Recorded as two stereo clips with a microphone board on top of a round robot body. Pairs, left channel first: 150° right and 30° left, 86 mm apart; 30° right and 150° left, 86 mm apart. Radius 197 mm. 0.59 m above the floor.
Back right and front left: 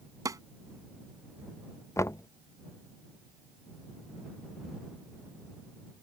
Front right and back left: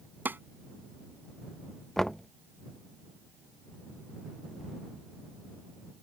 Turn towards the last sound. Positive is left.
turn(degrees=-115)